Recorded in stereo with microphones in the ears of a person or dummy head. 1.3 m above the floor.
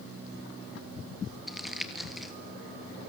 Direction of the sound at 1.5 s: 5° right (ahead or behind).